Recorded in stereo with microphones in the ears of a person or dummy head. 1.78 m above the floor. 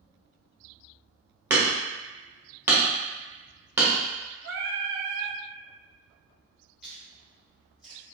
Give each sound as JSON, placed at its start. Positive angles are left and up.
{"t": 1.5, "sound": "hammering", "side_deg": -15, "distance_m": 0.9}
{"t": 4.4, "sound": "singing", "side_deg": -50, "distance_m": 0.5}
{"t": 6.8, "sound": "chewing", "side_deg": 5, "distance_m": 1.6}